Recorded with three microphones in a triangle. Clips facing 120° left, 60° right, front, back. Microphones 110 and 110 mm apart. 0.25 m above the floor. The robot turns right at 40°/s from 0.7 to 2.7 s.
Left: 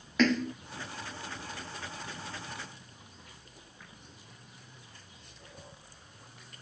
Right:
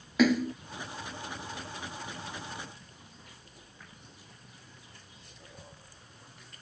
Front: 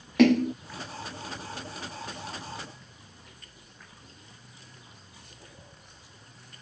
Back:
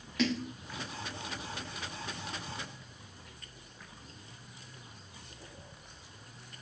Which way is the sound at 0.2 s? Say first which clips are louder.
Right 2 dB, front 12 dB; 20° left.